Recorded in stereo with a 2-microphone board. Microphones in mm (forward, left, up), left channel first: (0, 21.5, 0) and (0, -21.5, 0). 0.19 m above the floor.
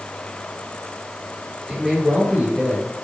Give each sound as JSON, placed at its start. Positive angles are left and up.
{"t": 1.7, "sound": "a man speaking", "side_deg": -5, "distance_m": 3.0}